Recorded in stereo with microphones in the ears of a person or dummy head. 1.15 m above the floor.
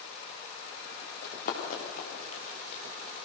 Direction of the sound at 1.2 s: 55° left (ahead or behind).